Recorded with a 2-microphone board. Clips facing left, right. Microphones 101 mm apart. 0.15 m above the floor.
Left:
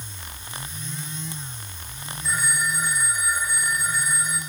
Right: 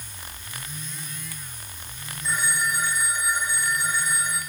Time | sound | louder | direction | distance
2.2 | a phone ringing | even | 5° left (ahead or behind) | 5 m